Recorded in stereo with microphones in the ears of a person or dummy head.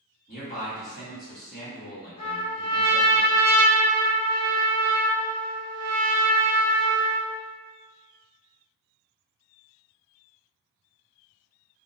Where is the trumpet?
40° left (ahead or behind), 1.0 m.